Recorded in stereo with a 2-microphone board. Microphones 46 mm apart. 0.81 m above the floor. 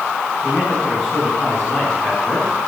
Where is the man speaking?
45° left (ahead or behind), 7 m.